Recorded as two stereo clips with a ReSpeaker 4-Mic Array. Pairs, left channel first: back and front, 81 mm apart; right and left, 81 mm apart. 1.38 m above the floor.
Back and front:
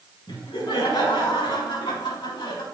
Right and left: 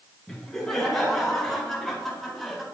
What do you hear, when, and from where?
0.3 s laughter: 175° right, 5 m; by 2.6 s straight behind, 3.5 m